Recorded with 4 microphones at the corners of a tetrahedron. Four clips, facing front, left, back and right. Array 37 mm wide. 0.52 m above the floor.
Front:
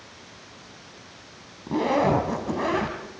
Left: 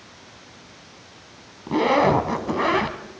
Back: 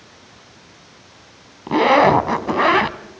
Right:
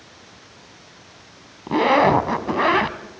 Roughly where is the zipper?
Behind.